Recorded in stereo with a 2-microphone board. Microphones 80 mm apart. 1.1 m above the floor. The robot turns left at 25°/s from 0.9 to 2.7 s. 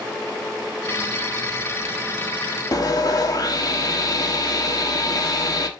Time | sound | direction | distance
2.7 | sawing | 50° left (ahead or behind) | 1.1 m